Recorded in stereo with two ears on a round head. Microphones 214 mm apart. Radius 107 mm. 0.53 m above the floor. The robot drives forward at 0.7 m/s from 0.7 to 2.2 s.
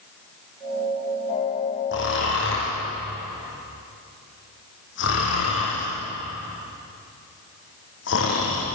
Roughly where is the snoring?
Left.